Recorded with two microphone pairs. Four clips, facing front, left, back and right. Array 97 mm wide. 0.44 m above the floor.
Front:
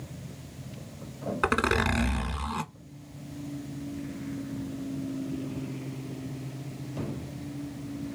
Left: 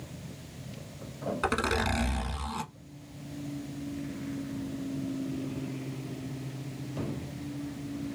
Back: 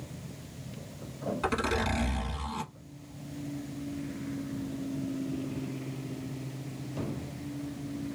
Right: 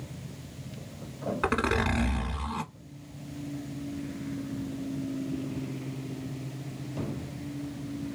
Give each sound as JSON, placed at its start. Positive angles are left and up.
{"t": 1.4, "sound": "a zipper", "azimuth_deg": -5, "distance_m": 0.8}